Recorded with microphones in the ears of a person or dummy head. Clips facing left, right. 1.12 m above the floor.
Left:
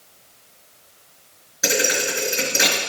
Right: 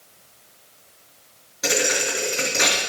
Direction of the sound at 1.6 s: Centre (ahead or behind).